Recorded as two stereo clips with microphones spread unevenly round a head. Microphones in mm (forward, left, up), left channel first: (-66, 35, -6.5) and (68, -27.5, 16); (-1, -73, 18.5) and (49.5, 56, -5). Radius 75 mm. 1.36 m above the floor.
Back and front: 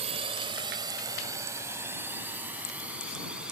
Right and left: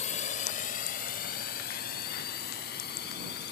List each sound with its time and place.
0.0 s a drone: 75° right; by 3.5 s 110° right